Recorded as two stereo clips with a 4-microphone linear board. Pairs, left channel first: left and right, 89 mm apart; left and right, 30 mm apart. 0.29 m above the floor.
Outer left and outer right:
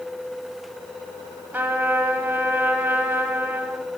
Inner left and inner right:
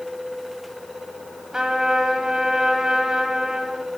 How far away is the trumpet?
About 1.4 m.